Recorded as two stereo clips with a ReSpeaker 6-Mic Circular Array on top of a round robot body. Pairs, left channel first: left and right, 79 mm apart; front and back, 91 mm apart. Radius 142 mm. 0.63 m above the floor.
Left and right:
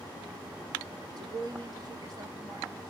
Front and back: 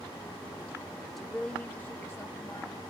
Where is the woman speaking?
95° right, 1.1 m; by 2.9 s 45° right, 1.7 m.